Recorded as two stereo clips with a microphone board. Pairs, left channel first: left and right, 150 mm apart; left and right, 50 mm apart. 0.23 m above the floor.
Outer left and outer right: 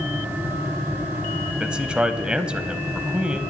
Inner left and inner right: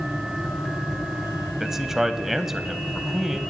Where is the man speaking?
5° right (ahead or behind), 0.9 m.